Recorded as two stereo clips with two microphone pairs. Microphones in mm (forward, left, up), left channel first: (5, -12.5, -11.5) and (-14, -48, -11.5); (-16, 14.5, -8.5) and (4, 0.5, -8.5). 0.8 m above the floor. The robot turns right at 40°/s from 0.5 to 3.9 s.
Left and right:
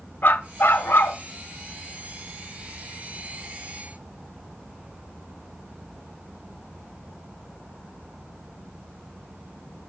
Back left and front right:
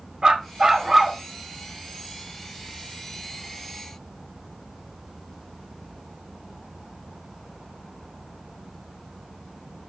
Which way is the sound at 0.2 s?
30° left.